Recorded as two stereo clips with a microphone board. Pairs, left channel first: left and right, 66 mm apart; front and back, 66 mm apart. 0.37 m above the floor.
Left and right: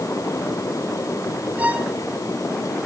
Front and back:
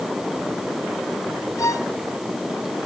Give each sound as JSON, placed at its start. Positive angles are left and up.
{"t": 1.6, "sound": "a violin", "azimuth_deg": -25, "distance_m": 1.8}